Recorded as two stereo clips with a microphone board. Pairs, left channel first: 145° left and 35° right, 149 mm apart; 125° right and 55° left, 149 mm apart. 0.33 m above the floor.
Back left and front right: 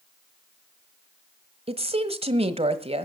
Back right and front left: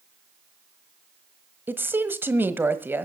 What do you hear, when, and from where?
1.7 s a woman speaking: 15° right, 1.3 m